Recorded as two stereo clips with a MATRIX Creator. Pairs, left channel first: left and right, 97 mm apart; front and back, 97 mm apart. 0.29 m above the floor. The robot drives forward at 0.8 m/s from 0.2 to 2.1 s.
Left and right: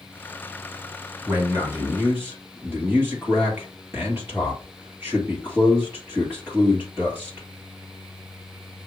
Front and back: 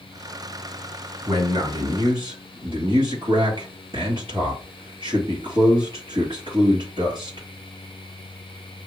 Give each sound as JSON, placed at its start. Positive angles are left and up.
{"t": 1.3, "sound": "a man speaking", "azimuth_deg": -155, "distance_m": 2.5}